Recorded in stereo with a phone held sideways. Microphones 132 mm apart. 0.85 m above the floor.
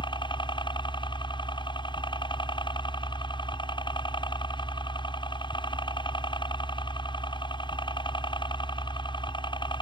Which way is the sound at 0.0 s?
35° left (ahead or behind).